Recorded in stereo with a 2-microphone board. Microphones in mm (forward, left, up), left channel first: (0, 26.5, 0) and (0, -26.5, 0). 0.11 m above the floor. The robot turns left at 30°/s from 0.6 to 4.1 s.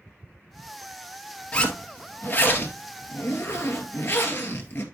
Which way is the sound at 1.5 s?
150° left.